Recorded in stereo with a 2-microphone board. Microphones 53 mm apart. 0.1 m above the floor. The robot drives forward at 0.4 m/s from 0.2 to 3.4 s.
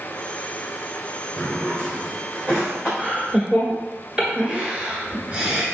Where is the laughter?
20° right (ahead or behind), 1.3 m.